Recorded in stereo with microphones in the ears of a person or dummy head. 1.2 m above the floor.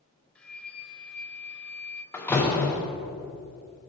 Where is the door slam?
10° left (ahead or behind), 1.2 m.